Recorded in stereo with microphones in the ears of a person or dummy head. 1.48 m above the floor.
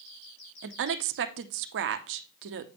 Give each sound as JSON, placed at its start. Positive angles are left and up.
{"t": 0.6, "sound": "a woman speaking", "side_deg": -65, "distance_m": 0.7}